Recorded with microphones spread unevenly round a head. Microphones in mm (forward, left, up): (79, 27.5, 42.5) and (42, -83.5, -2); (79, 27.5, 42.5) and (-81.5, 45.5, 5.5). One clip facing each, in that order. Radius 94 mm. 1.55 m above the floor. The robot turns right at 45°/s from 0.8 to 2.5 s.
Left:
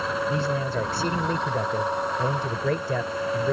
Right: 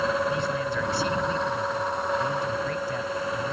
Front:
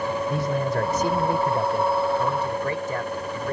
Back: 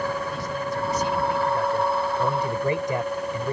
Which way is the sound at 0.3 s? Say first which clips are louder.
Left 1 dB, front 5 dB; 25° left.